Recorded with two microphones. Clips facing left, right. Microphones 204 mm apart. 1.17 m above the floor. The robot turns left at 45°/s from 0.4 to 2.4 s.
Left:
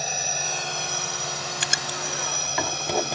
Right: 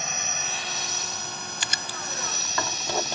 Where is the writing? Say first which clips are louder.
Left 4 dB; 50° left (ahead or behind); by 3.1 s 15° left (ahead or behind).